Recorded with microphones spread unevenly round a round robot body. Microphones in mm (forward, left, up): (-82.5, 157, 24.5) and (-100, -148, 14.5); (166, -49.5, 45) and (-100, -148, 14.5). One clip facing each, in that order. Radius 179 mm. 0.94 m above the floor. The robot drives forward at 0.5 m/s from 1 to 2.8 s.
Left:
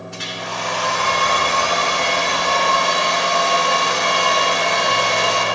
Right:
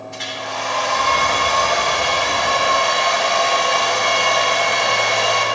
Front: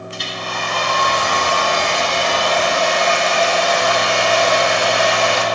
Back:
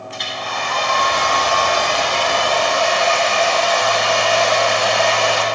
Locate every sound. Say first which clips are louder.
0.1 s a hair dryer: right 1 dB, even; 40° right, 4 m; by 5.5 s 50° right, 3 m